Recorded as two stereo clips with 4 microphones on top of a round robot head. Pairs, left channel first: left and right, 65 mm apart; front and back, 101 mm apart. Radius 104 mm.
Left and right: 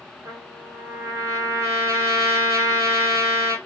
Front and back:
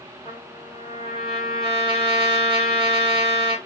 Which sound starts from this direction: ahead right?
A trumpet, at 0.2 s.